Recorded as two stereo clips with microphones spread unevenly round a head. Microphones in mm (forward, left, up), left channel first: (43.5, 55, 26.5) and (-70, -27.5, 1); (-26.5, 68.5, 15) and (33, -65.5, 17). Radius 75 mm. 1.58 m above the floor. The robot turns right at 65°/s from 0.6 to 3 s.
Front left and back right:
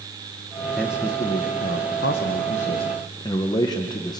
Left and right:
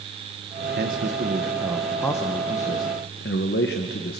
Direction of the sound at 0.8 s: 50° right.